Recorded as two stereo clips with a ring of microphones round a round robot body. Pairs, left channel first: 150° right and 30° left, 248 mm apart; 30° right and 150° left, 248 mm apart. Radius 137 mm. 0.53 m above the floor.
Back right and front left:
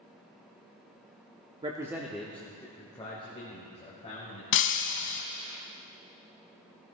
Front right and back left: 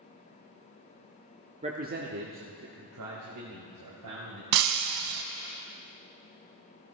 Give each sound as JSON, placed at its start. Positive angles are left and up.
{"t": 1.6, "sound": "a man speaking", "azimuth_deg": 95, "distance_m": 0.9}
{"t": 4.5, "sound": "breaking glass", "azimuth_deg": 170, "distance_m": 0.6}